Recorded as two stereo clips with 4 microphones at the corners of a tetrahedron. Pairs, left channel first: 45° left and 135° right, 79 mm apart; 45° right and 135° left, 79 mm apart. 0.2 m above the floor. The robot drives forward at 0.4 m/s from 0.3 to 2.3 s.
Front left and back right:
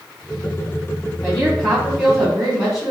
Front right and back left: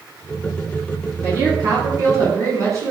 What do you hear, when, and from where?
1.2 s a woman speaking: 125° left, 1.7 m; by 2.9 s 140° left, 1.9 m